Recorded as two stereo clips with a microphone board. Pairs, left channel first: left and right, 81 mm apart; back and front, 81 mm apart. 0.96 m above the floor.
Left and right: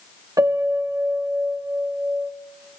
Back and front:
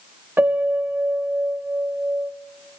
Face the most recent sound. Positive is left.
turn(degrees=-60)